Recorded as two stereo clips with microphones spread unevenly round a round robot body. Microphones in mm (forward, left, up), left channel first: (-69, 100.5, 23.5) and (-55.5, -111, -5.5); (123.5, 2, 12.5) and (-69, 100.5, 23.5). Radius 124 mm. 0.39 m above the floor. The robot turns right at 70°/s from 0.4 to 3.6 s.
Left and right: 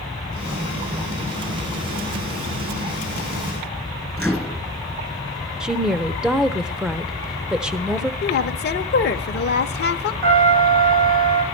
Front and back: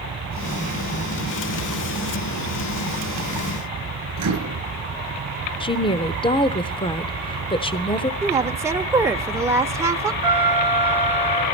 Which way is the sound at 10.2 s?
135° right.